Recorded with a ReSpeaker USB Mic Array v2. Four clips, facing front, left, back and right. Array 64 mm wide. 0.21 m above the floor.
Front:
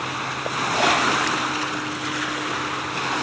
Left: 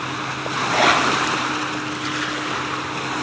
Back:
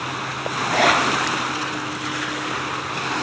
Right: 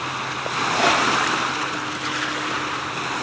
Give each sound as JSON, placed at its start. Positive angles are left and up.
{"t": 0.6, "sound": "a zipper", "azimuth_deg": 140, "distance_m": 3.5}